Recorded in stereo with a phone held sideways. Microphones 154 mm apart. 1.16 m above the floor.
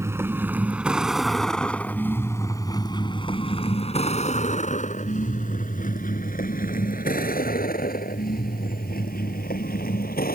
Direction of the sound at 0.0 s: 20° right (ahead or behind).